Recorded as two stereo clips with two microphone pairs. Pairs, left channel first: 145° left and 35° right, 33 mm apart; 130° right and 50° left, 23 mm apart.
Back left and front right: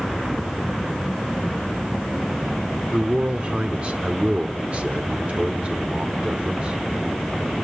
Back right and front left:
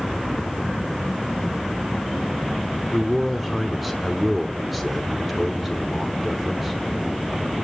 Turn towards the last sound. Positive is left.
turn(degrees=-35)